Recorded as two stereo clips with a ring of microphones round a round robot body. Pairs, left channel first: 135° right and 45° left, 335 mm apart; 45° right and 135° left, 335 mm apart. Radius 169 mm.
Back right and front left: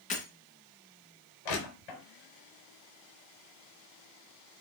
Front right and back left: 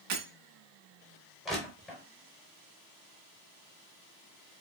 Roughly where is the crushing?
Behind right.